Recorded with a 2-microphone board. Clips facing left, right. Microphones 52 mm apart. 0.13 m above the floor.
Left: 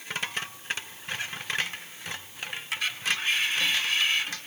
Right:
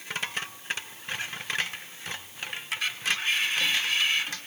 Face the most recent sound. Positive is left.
No sound to turn to.